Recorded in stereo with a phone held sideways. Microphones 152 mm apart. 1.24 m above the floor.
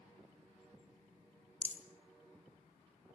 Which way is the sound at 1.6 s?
55° left (ahead or behind).